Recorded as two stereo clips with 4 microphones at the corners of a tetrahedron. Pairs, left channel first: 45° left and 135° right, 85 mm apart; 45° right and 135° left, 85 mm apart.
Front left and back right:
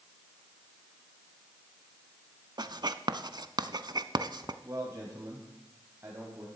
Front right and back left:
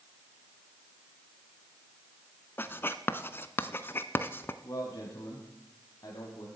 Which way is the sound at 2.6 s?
110° right.